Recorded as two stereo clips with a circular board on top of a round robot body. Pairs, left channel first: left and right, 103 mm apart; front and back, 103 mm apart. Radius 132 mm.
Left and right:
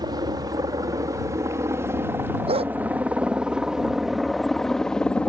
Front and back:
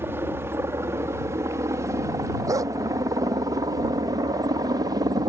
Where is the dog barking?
120° right.